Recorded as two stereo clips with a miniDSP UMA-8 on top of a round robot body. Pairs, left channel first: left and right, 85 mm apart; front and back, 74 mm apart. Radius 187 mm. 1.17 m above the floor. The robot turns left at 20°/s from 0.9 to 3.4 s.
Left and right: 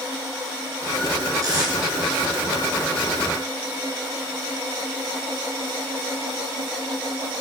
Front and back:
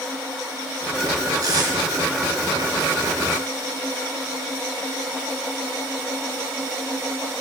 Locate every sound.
1.4 s tape being pulled: 135° right, 4 m; by 1.7 s 145° right, 4 m